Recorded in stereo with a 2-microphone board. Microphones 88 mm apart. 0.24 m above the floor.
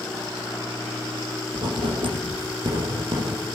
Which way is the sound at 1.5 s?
70° right (ahead or behind).